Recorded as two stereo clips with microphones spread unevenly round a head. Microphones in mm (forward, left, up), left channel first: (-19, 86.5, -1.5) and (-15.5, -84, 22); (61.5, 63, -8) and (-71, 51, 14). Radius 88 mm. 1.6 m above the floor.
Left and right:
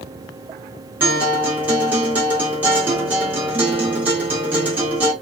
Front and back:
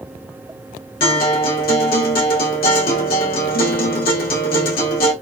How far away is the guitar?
About 1.9 m.